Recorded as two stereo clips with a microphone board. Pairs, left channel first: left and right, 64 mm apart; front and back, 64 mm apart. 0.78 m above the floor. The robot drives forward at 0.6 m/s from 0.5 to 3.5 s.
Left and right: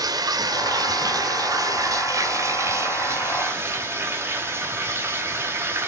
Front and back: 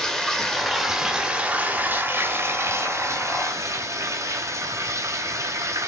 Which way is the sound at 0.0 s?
85° right.